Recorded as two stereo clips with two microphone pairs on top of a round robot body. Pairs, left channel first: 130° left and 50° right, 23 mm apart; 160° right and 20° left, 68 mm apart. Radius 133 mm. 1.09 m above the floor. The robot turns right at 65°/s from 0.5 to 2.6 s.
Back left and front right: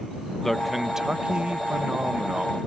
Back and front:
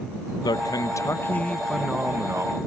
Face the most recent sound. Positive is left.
turn(degrees=-10)